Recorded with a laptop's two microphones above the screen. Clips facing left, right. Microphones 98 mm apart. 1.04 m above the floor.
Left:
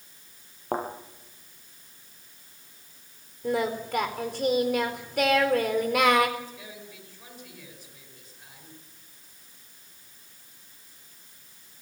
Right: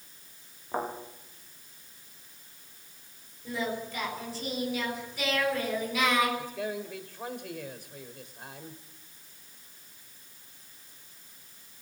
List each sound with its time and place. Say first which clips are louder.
0.7 s a thud: left 3 dB; 70° left (ahead or behind), 7.5 m
3.4 s singing: left 6 dB; 65° left (ahead or behind), 4.5 m
6.4 s a man speaking: right 7 dB; 60° right (ahead or behind), 4 m